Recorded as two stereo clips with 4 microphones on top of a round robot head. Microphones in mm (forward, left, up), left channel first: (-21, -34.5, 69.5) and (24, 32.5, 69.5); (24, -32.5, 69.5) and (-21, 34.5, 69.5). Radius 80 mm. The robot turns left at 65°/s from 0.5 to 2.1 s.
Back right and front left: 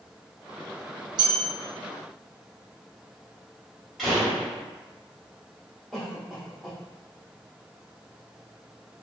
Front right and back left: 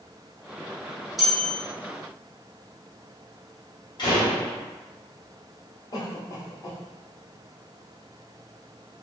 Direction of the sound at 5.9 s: 30° right.